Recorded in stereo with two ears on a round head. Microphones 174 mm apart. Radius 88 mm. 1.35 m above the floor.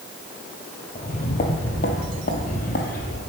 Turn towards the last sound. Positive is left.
turn(degrees=40)  # may be behind; listen again after turning